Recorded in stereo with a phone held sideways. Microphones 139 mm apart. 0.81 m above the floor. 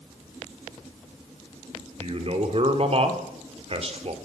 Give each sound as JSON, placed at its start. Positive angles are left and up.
{"t": 2.0, "sound": "a man speaking", "side_deg": -50, "distance_m": 2.5}